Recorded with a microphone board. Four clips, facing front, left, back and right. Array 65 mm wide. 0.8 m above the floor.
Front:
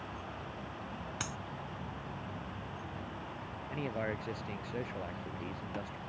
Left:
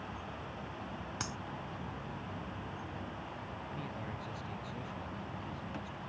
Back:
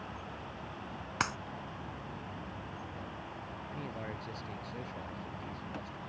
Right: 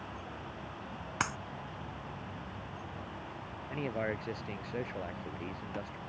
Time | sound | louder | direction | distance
1.2 | a clap | right 10 dB, back 11 dB | 135° right | ?
3.7 | a man speaking | right 12 dB, front 7 dB | 65° right | ?